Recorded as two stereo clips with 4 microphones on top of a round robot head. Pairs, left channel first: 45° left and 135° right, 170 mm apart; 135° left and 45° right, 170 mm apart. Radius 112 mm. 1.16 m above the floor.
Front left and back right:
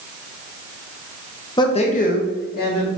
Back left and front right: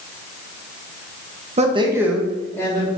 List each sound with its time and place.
1.6 s a man speaking: 15° right, 0.6 m; by 2.9 s 70° left, 1.1 m